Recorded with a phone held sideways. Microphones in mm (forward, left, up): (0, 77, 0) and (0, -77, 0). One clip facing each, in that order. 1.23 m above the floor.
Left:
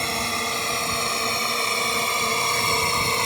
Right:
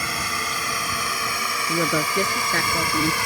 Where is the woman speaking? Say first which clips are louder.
Right 4 dB; 80° right.